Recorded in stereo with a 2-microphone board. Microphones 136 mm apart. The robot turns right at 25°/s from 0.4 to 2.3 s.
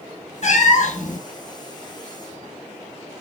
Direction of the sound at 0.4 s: 55° left (ahead or behind).